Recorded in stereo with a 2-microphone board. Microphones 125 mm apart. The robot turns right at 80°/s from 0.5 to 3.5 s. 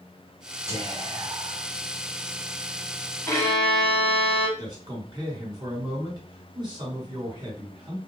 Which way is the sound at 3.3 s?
15° left (ahead or behind).